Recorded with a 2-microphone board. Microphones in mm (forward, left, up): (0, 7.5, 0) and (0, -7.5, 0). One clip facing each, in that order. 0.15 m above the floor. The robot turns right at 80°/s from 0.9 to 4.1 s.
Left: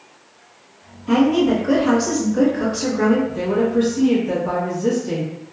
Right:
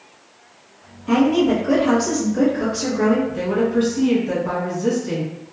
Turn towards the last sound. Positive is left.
turn(degrees=-20)  # may be behind; listen again after turning